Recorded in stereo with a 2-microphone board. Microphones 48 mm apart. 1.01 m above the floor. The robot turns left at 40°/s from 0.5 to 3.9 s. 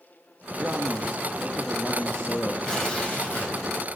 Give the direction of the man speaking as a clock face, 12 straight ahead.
5 o'clock.